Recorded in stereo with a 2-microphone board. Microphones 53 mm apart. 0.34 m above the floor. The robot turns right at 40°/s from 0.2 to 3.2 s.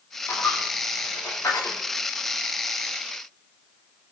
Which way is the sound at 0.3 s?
45° left (ahead or behind).